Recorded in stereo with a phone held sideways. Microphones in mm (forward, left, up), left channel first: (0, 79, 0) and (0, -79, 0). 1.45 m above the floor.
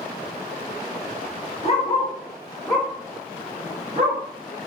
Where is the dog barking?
40° left (ahead or behind), 1.0 m; by 4.2 s 40° right (ahead or behind), 1.2 m.